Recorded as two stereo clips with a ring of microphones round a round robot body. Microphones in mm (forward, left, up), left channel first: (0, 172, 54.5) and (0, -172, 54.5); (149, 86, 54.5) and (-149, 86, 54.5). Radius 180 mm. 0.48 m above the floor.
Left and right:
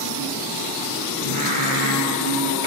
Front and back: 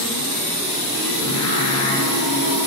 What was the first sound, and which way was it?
Singing, 50° right.